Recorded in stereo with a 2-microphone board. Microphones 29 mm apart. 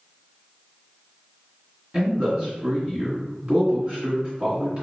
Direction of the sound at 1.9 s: 35° right (ahead or behind).